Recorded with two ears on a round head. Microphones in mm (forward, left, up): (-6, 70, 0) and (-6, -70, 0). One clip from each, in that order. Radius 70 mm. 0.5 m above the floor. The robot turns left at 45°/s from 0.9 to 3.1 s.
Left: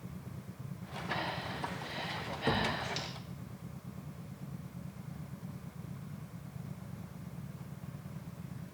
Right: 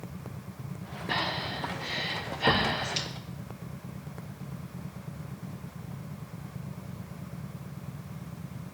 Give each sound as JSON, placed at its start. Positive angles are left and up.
{"t": 1.1, "sound": "breathing", "side_deg": -85, "distance_m": 6.5}